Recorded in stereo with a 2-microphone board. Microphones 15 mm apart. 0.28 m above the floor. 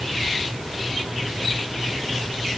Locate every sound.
Only background noise.